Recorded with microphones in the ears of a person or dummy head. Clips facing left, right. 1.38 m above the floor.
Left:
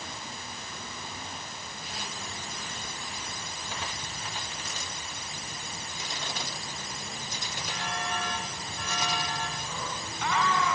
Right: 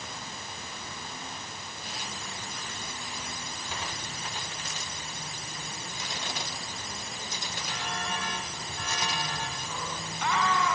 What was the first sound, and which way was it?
Only background noise.